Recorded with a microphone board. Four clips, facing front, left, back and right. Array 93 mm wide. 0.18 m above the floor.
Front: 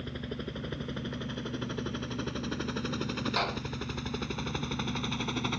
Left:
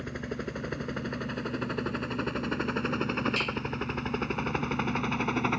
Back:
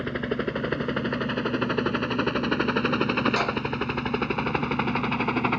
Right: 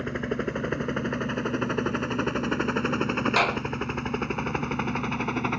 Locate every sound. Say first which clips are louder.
0.0 s a helicopter: right 7 dB, back 11 dB; 150° right; by 5.6 s straight behind
3.4 s a clap: right 8 dB, back 6 dB; 95° right